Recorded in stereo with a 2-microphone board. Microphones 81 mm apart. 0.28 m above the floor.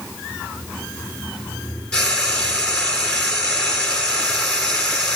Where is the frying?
15° left (ahead or behind), 5 m.